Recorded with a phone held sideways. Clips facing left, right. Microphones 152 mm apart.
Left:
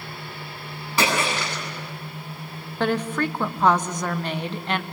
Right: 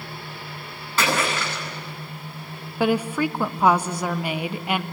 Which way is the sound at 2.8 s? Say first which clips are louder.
Right 2 dB; 10° right (ahead or behind).